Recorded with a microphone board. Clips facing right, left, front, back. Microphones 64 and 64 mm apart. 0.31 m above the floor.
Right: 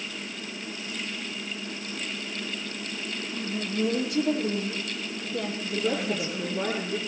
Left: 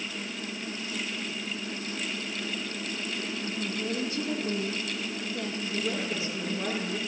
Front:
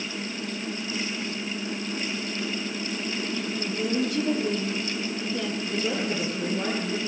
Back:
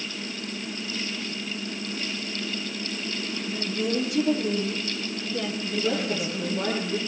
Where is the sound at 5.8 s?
95° right, 6.5 m.